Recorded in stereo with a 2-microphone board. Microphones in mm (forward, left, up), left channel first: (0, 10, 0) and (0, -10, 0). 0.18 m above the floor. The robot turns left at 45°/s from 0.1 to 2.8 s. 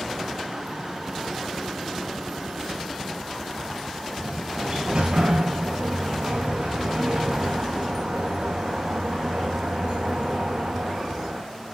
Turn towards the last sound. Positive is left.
turn(degrees=-75)  # may be behind; listen again after turning